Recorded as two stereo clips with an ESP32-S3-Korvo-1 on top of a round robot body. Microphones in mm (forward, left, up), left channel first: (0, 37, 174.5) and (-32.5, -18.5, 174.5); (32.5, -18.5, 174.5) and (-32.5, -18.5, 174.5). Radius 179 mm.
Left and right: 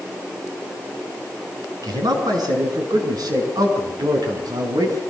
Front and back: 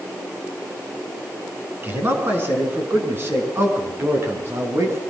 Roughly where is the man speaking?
Behind right.